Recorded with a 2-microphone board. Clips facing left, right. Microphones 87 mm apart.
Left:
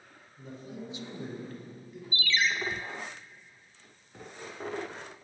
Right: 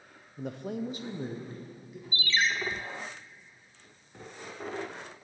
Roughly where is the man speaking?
Right.